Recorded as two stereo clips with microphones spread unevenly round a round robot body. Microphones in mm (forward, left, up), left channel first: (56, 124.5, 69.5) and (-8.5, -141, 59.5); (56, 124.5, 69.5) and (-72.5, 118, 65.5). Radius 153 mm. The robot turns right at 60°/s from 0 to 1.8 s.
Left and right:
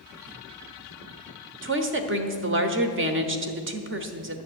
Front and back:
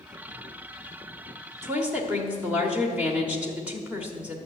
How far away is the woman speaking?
About 1.2 m.